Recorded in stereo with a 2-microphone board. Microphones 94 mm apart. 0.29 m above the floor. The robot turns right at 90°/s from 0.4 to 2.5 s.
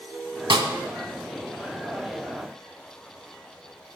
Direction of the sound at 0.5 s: 70° right (ahead or behind).